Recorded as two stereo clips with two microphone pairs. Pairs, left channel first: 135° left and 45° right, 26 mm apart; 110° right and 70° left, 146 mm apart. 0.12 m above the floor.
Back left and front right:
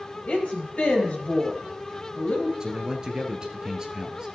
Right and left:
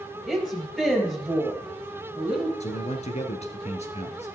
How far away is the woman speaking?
About 3.5 m.